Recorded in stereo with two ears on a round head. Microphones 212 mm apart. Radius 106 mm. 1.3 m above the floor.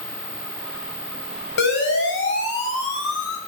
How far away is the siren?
About 7.5 m.